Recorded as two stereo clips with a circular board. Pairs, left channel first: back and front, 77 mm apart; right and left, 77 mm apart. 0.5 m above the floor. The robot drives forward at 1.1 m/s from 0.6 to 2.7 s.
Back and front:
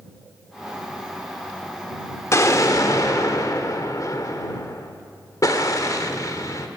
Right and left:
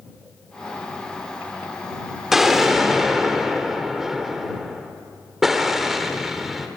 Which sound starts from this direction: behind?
An explosion, at 2.3 s.